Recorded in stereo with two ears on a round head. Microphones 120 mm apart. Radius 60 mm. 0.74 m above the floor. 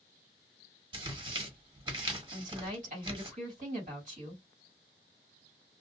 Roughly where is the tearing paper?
Right.